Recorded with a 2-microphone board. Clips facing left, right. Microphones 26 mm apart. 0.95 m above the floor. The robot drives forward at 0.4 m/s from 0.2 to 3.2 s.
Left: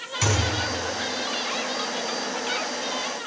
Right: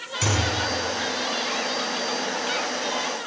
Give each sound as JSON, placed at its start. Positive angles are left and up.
{"t": 0.2, "sound": "a thud", "side_deg": 30, "distance_m": 4.0}